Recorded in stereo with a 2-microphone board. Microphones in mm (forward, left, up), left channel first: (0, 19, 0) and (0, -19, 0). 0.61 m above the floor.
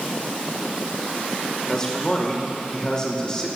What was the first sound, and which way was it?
A man speaking, 25° left (ahead or behind).